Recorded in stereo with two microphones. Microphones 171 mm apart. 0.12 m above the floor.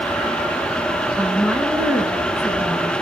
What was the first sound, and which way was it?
A woman speaking, 10° right (ahead or behind).